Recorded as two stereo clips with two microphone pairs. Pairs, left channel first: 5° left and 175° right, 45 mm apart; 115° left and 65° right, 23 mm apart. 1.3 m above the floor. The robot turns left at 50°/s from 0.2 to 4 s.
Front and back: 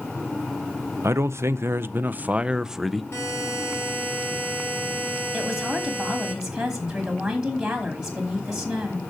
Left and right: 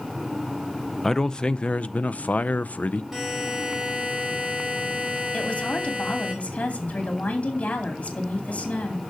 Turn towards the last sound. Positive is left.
turn(degrees=105)